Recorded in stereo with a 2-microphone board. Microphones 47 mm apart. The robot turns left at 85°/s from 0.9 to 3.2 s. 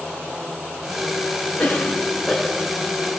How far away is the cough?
About 1.1 m.